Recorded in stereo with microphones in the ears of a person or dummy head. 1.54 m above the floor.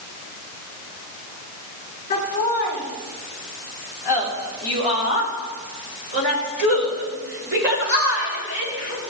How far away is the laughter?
About 2.5 m.